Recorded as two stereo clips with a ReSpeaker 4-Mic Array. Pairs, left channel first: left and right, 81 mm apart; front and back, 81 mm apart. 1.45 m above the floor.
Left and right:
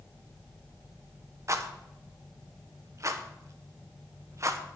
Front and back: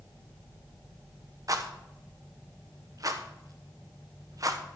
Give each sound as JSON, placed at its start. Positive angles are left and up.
{"t": 1.5, "sound": "a rattle", "azimuth_deg": -140, "distance_m": 1.0}